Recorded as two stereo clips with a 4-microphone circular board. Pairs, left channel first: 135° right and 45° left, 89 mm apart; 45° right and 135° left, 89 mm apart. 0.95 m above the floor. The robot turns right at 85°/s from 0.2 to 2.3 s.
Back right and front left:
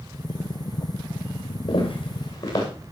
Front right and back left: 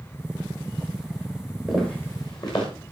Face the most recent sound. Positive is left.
turn(degrees=-85)